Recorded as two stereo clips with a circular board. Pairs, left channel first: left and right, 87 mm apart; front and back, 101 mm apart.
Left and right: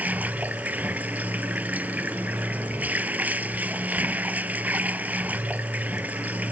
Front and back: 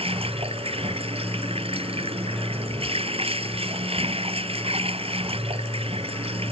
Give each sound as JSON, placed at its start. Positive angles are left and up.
{"t": 0.0, "sound": "running water", "azimuth_deg": -160}